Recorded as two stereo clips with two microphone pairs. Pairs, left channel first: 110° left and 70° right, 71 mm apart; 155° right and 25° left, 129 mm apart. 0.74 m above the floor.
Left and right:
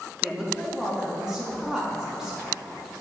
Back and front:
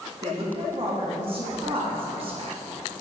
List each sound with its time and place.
0.2 s a woman speaking: 10° left, 1.3 m